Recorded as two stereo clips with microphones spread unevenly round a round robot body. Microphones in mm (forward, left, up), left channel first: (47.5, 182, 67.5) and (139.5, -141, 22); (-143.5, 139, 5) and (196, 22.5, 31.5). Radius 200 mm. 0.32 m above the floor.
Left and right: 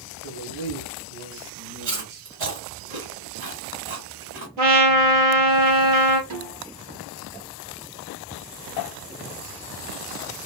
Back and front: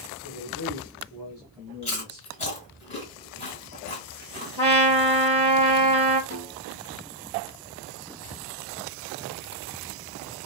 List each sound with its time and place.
0.2 s a man speaking: 105° right, 1.8 m; by 2.3 s 100° right, 3.5 m
1.8 s chewing: 130° right, 1.9 m
4.6 s a trumpet: 80° right, 2.5 m
6.3 s a snare drum: 80° right, 2.5 m